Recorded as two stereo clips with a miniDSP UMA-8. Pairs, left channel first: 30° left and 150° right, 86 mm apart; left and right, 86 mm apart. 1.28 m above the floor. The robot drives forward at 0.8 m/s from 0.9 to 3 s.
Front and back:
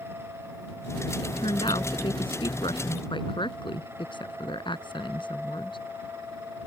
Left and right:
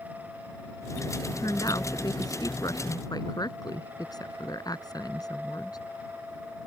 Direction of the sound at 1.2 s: 45° left.